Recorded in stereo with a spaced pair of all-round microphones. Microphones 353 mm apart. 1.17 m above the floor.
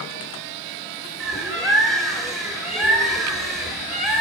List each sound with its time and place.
1.2 s a bird: centre (ahead or behind), 5.5 m